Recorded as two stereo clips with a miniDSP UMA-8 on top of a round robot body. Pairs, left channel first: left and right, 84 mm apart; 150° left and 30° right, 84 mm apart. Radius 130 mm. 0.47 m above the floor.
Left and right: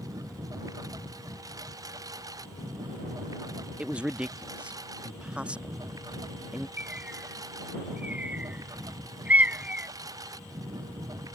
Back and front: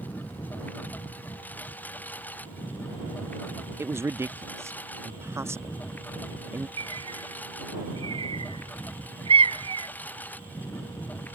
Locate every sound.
0.0 s a lawn mower: 140° right
3.8 s a man speaking: 25° right
6.8 s a bird: 15° right